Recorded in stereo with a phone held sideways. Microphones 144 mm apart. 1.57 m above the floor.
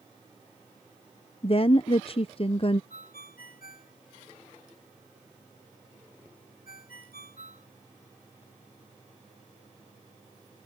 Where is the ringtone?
85° left.